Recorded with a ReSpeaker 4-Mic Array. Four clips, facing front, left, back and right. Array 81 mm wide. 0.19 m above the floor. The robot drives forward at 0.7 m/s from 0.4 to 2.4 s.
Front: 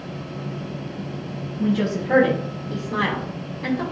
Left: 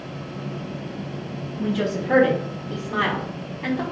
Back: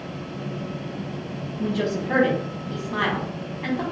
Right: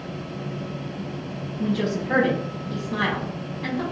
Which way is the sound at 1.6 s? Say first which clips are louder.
Even, front 3 dB; 60° left.